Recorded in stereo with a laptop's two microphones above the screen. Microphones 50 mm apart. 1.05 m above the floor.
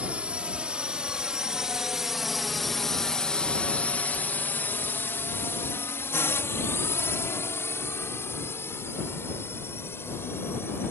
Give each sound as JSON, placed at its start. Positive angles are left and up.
{"t": 0.0, "sound": "a drone", "side_deg": -25}